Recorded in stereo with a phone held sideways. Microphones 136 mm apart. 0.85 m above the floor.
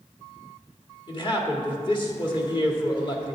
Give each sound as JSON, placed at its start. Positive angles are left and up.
{"t": 1.1, "sound": "a man speaking", "side_deg": 35, "distance_m": 1.7}